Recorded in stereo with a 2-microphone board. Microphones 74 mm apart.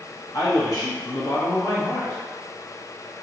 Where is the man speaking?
55° left (ahead or behind), 1.2 m.